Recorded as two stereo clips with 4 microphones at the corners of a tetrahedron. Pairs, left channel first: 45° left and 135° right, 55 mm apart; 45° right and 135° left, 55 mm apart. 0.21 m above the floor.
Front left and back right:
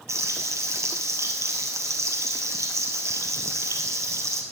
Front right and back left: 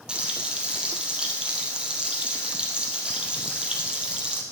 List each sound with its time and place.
0.1 s frying: 155° right, 2 m